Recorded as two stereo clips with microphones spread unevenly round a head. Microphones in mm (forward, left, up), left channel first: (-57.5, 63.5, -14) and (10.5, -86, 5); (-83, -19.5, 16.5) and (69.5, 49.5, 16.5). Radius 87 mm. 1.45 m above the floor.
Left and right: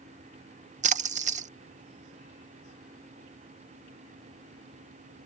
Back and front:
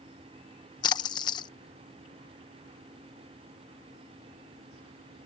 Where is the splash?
95° right.